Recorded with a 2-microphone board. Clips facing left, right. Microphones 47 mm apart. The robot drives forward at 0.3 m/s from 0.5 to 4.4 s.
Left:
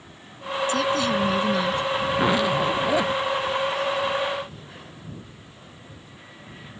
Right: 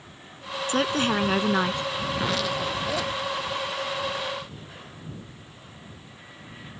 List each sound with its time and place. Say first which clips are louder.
0.7 s a woman speaking: even; 40° right (ahead or behind); by 1.8 s 45° right (ahead or behind)
2.1 s a zipper: left 7 dB; 25° left (ahead or behind); by 3.2 s 20° left (ahead or behind)